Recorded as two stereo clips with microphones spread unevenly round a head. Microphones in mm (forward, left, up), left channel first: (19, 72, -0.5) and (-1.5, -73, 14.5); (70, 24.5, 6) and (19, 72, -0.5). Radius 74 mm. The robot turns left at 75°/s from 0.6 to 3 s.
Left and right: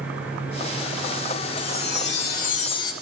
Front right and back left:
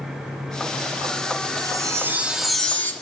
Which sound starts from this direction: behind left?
A chime, at 1.6 s.